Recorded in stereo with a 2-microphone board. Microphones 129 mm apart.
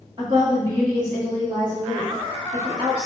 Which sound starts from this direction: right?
A woman speaking, at 0.2 s.